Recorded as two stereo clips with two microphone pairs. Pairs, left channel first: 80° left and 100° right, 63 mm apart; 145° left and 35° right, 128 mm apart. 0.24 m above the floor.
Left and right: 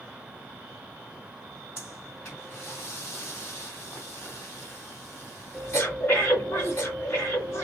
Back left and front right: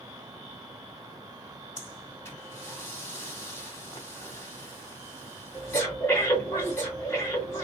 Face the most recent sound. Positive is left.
turn(degrees=85)